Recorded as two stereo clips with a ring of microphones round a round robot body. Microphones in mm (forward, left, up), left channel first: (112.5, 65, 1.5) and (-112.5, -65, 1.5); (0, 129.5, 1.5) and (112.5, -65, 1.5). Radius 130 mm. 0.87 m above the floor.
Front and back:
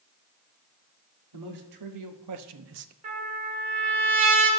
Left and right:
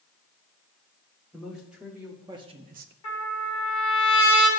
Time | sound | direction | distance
1.3 | a man speaking | 150° right | 2 m
3.0 | a trumpet | 150° left | 2.5 m